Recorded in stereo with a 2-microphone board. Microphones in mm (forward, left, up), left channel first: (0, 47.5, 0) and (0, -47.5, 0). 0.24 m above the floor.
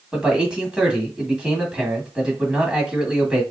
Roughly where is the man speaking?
Centre.